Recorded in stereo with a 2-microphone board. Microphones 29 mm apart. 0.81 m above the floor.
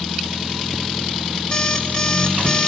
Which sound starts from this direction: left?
An alarm clock, at 1.5 s.